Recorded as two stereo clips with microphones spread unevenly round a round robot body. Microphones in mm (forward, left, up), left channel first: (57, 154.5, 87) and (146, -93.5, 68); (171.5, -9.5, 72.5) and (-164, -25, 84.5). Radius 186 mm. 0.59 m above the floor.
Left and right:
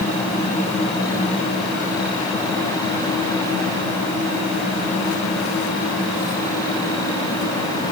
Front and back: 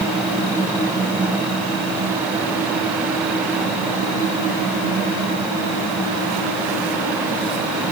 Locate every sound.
Only background noise.